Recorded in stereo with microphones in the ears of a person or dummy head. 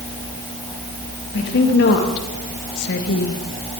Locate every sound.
1.3 s a woman speaking: 55° left (ahead or behind), 2.5 m; by 3.4 s 60° left (ahead or behind), 1.0 m